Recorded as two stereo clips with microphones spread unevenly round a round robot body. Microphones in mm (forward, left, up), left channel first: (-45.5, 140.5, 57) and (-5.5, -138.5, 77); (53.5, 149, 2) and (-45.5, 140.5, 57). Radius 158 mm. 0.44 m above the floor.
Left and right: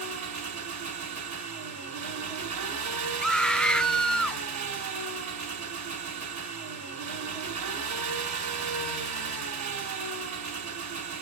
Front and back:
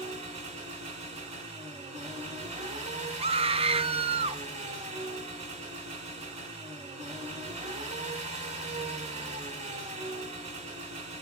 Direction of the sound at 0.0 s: 105° right.